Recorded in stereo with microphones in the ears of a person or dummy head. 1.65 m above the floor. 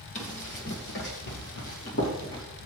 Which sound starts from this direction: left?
Running footsteps, at 0.1 s.